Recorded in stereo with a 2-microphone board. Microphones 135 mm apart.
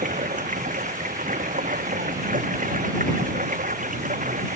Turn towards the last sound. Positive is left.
turn(degrees=-85)